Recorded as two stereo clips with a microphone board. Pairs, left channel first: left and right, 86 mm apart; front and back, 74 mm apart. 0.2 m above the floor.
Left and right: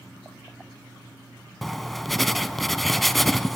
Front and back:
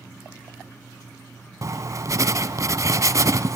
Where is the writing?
Straight behind, 0.7 m.